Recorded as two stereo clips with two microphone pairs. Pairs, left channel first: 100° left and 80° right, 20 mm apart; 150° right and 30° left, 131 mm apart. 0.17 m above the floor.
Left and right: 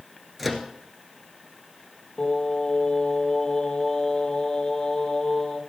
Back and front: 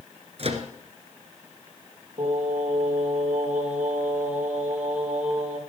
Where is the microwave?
5° left, 1.7 m.